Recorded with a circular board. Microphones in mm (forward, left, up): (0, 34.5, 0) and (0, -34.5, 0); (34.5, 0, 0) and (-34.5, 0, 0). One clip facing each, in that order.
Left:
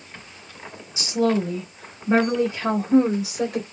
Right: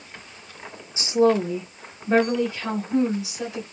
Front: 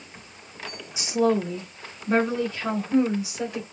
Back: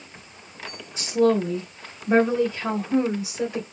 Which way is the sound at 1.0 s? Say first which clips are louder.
Right 3 dB, back 2 dB; 70° right.